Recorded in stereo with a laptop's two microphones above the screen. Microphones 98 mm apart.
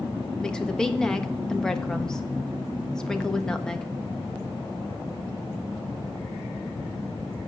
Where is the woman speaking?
5° left (ahead or behind), 1.1 m.